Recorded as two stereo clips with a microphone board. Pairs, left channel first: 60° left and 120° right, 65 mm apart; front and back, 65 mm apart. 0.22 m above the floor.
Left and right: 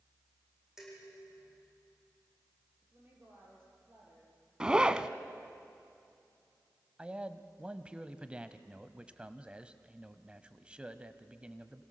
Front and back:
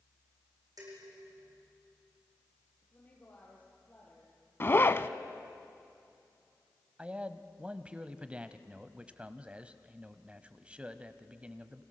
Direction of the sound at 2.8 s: 65° right.